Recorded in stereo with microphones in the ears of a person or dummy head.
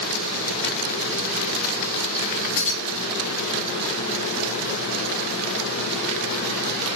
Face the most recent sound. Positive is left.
turn(degrees=70)  # may be behind; listen again after turning